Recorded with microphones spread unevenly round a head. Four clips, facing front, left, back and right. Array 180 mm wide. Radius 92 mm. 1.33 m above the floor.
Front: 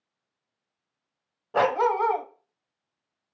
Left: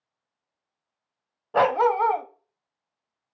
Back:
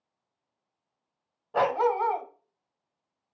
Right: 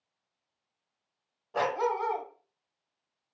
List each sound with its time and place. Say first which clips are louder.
1.5 s a dog barking: left 9 dB, front 2 dB; 50° left, 1.8 m